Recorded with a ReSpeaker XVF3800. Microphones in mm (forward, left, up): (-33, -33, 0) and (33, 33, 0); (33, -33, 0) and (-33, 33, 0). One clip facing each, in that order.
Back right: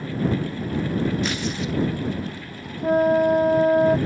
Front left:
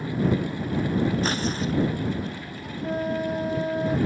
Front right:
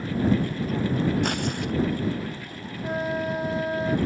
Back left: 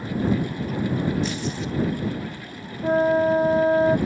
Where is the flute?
170° right.